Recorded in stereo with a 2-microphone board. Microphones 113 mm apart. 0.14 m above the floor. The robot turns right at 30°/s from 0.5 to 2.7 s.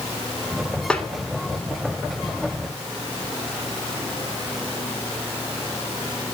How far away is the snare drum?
About 0.6 m.